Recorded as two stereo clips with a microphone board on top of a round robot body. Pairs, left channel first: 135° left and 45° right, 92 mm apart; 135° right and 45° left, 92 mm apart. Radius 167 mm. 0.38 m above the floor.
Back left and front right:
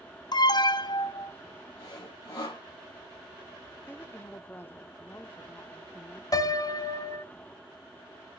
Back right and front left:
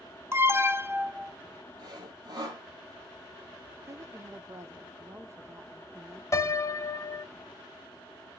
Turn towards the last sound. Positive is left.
turn(degrees=175)